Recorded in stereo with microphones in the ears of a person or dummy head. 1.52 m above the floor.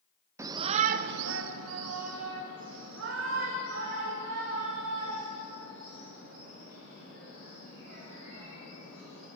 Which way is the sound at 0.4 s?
15° right (ahead or behind).